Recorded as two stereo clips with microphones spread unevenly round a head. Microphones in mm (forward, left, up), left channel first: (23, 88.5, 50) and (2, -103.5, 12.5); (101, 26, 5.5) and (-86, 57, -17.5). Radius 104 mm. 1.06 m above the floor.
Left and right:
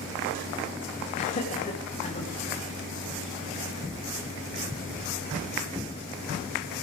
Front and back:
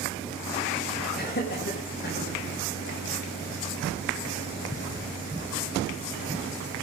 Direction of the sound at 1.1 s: 30° left.